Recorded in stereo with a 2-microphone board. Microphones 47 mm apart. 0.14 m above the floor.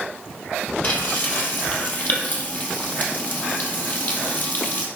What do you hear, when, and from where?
0.8 s frying: 35° left (ahead or behind), 2.5 m